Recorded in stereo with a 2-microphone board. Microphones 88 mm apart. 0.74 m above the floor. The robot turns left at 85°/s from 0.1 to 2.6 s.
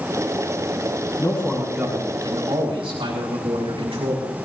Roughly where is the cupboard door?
I don't hear a cupboard door.